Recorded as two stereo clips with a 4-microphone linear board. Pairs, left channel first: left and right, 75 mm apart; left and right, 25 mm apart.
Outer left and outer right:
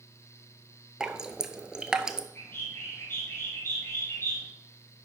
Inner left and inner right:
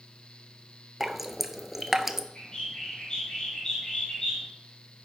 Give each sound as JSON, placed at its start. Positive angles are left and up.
{"t": 1.0, "sound": "dripping", "side_deg": -10, "distance_m": 0.8}
{"t": 2.4, "sound": "a bird", "side_deg": 30, "distance_m": 6.0}